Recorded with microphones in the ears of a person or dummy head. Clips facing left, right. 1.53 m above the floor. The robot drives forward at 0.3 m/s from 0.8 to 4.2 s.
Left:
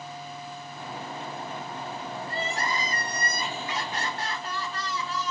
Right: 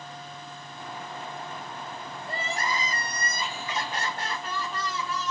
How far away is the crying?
About 1.0 m.